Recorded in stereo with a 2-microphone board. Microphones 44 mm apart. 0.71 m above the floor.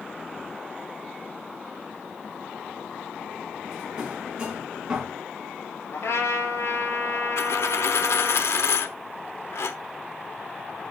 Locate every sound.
3.7 s a drawer: 20° right (ahead or behind), 4.5 m
5.9 s a trumpet: 85° left, 5.5 m
7.4 s a dropped coin: 80° left, 0.8 m